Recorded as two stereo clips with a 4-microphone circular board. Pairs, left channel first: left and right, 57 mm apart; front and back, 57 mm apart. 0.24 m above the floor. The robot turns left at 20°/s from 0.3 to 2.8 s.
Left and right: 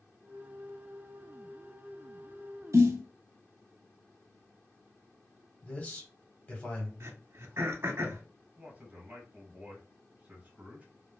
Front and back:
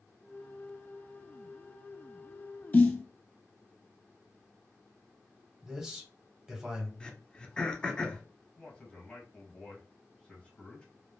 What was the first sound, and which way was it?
A snare drum, 60° right.